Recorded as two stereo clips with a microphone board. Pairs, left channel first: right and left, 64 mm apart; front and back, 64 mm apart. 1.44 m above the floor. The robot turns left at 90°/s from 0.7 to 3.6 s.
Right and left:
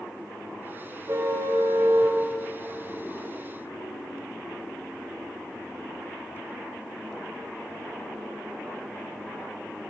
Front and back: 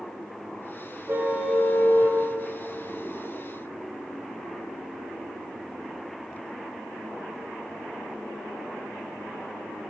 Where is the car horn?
130° left, 3.5 m; by 2.2 s 30° left, 3.5 m.